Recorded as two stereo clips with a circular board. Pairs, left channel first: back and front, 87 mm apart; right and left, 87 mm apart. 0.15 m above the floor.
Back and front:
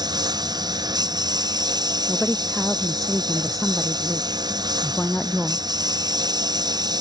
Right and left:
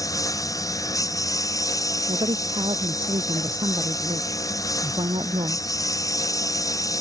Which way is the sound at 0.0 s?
40° right.